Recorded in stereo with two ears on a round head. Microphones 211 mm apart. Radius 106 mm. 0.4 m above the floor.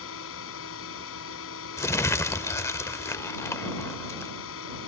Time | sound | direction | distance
0.0 | a drone | 60° left (ahead or behind) | ?
1.8 | crumpling | 10° left (ahead or behind) | ?